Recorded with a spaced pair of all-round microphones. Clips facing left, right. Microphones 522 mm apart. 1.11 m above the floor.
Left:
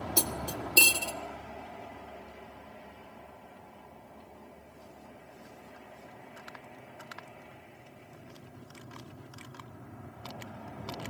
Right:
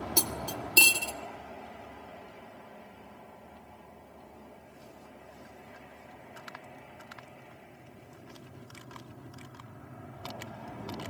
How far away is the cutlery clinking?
About 1.2 m.